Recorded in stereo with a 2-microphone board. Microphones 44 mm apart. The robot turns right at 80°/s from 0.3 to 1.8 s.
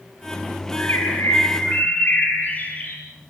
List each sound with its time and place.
0.8 s a bird: 55° left, 8 m; by 3.0 s 140° left, 8 m